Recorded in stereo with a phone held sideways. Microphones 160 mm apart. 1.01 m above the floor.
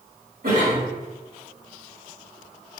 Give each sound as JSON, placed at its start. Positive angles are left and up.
{"t": 0.4, "sound": "a cough", "side_deg": -70, "distance_m": 1.6}